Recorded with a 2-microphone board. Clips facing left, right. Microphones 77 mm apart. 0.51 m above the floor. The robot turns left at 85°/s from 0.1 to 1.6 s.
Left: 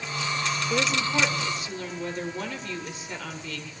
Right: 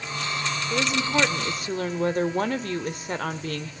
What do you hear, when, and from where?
0.7 s a woman speaking: 15° left, 1.3 m; by 3.7 s 65° right, 1.3 m